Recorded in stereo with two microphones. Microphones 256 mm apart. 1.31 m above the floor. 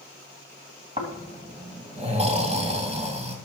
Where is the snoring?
25° right (ahead or behind), 2 m.